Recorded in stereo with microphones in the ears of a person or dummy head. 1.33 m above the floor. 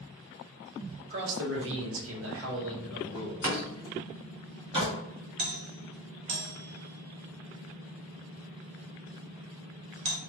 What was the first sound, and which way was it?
A man speaking, 50° right (ahead or behind).